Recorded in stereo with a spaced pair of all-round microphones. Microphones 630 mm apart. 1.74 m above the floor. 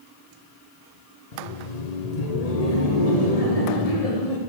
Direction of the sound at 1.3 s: 80° left.